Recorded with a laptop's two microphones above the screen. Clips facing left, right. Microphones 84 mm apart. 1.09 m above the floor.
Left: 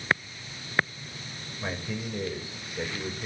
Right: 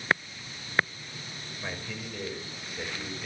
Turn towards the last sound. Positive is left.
turn(degrees=25)  # may be behind; listen again after turning